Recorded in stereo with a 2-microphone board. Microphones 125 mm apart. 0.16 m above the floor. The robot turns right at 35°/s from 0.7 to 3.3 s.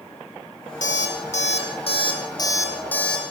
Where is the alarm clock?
95° left, 4 m; by 3.2 s 175° left, 4 m.